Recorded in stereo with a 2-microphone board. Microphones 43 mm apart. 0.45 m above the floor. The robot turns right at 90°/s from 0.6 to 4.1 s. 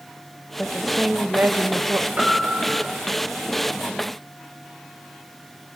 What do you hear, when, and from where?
0.6 s a woman speaking: 160° left, 1.7 m; by 2.1 s 70° right, 1.7 m
2.2 s a piano: 150° right, 5.5 m; by 2.9 s 85° right, 5.5 m